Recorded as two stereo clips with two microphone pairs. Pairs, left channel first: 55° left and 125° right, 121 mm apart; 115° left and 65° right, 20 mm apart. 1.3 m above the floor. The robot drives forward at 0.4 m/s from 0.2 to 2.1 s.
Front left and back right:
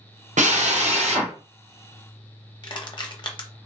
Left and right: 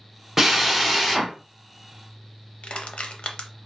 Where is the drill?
135° right, 0.7 m; by 1.3 s 150° right, 1.1 m.